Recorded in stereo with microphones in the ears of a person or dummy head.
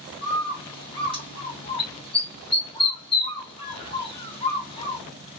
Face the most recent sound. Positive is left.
turn(degrees=25)  # may be behind; listen again after turning